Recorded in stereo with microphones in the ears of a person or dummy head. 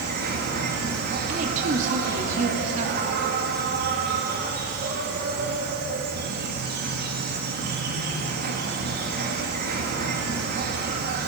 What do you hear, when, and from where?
0.0 s an insect: 50° right (ahead or behind), 2 m
1.3 s a woman speaking: 40° right (ahead or behind), 2.5 m